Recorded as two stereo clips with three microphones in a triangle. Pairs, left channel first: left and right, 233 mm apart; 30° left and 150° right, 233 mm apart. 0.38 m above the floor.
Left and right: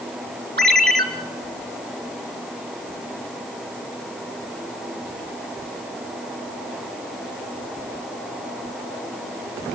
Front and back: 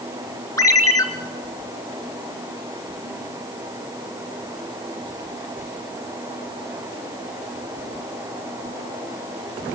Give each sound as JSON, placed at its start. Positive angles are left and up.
{"t": 0.6, "sound": "a ringtone", "azimuth_deg": -45, "distance_m": 3.5}